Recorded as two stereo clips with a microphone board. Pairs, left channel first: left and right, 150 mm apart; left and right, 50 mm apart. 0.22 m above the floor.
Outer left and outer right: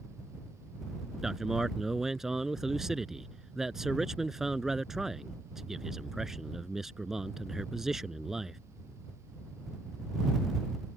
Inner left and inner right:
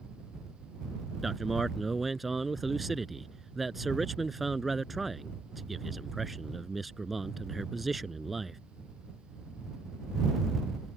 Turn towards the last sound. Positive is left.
turn(degrees=-5)  # may be behind; listen again after turning